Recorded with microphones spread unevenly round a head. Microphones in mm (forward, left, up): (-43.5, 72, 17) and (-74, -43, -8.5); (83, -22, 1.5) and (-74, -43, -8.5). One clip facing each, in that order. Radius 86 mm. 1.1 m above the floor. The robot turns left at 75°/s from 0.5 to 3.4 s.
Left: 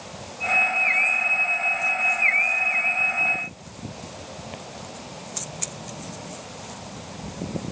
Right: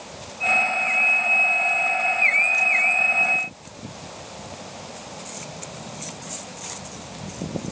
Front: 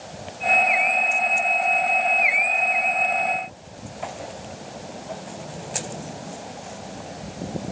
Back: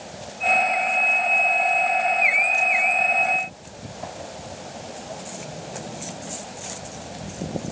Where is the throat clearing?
No throat clearing in this recording.